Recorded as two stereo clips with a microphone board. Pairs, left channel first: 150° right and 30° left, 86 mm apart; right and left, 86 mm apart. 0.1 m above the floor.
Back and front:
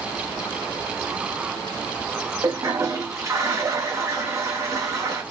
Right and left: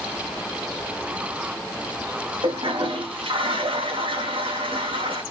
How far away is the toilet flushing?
About 1.8 m.